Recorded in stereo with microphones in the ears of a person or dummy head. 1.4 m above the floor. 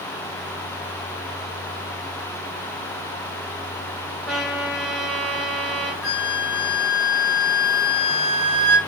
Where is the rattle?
I don't hear a rattle.